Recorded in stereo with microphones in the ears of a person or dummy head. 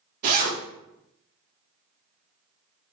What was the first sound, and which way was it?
A zipper, 45° right (ahead or behind).